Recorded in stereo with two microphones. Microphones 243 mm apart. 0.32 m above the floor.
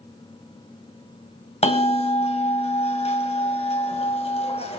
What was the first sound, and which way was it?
A bell, 25° left (ahead or behind).